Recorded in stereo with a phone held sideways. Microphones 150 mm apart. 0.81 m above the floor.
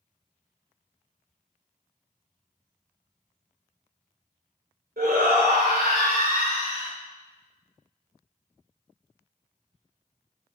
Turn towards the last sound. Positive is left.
turn(degrees=-60)  # may be behind; listen again after turning